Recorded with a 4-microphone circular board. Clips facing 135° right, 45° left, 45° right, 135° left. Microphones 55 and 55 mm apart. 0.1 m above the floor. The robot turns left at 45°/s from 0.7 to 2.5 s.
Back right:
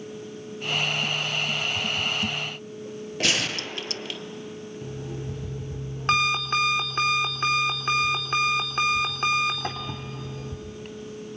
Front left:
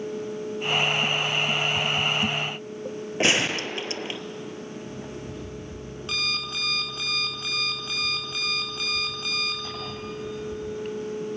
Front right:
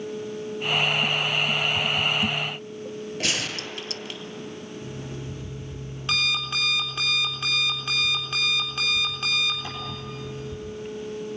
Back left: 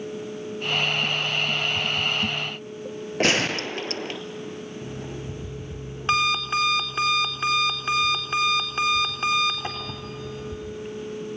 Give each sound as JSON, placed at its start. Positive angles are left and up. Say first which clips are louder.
{"t": 3.2, "sound": "a gunshot", "louder": "front left 4 dB, back left 8 dB", "azimuth_deg": 100, "distance_m": 0.8}
{"t": 4.8, "sound": "an alarm clock", "louder": "back right 1 dB, back left 1 dB", "azimuth_deg": -170, "distance_m": 3.5}